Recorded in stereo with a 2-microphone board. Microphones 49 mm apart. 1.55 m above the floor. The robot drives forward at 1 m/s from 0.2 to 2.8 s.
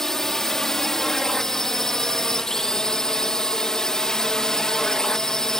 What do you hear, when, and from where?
0.0 s a drone: 5° left (ahead or behind); by 5.6 s 10° left (ahead or behind)